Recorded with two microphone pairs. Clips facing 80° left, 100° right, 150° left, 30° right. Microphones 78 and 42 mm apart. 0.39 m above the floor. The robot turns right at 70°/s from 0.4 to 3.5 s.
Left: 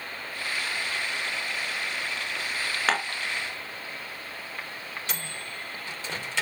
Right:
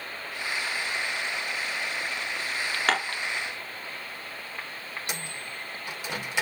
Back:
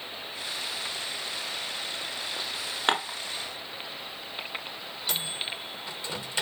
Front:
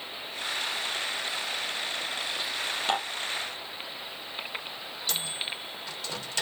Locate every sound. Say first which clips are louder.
2.9 s dishes clattering: even, back 5 dB; 170° left, 3.5 m; by 3.2 s 170° right, 3.5 m
5.1 s a microwave: even, back 1 dB; 155° right, 1.1 m